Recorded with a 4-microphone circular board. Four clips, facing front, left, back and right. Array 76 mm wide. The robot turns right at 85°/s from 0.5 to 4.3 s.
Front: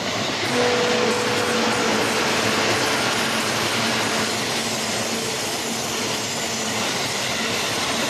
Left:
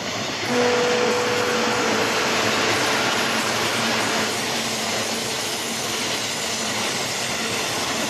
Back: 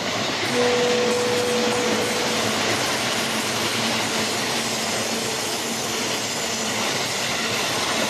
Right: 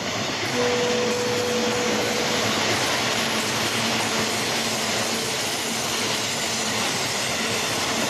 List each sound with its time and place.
0.5 s a guitar: 80° left, 4.5 m; by 2.4 s 115° right, 4.5 m